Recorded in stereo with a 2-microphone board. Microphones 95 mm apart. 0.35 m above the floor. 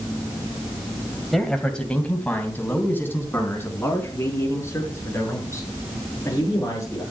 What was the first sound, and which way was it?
A man speaking, 5° left (ahead or behind).